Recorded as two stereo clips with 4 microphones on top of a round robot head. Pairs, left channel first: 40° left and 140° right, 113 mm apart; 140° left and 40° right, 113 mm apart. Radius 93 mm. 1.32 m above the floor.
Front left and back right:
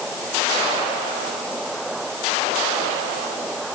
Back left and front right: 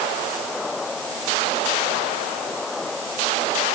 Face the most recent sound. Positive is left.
No sound to turn to.